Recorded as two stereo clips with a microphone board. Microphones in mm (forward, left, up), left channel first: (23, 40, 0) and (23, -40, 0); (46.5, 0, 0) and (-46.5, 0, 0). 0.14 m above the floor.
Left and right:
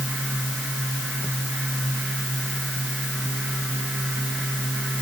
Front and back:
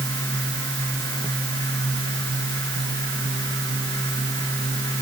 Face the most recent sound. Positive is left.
No sound to turn to.